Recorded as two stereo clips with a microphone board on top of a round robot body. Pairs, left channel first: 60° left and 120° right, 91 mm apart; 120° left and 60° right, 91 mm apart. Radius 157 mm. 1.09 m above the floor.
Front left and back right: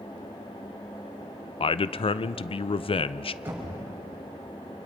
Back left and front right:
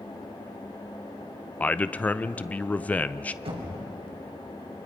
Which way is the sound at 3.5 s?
55° right.